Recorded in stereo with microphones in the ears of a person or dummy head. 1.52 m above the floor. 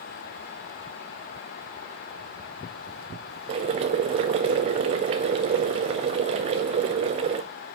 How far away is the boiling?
About 0.7 m.